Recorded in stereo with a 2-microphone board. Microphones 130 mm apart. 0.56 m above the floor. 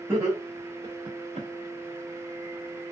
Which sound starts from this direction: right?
Laughter, at 0.1 s.